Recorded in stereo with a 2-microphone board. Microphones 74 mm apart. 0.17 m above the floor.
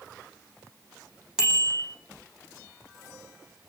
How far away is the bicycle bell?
About 5.5 m.